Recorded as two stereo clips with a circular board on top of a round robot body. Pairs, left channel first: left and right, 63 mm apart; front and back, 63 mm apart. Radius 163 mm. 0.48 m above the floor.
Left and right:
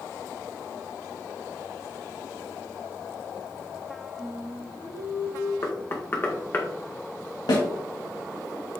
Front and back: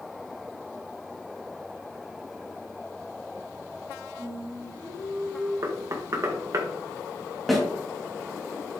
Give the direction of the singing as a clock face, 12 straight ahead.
5 o'clock.